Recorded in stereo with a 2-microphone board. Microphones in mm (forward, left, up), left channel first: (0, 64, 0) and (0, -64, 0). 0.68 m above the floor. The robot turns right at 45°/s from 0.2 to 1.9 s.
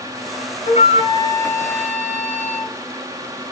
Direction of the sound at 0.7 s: 120° left.